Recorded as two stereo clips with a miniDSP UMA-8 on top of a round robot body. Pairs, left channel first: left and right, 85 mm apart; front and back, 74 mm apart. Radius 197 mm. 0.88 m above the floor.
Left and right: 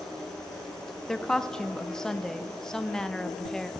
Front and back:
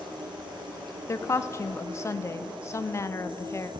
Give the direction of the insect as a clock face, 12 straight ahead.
6 o'clock.